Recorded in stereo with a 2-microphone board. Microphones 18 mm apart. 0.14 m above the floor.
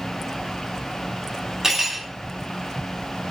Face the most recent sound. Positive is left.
turn(degrees=-25)  # may be behind; listen again after turning